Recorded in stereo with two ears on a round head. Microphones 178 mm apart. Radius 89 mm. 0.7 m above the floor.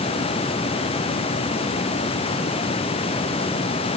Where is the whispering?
I don't hear whispering.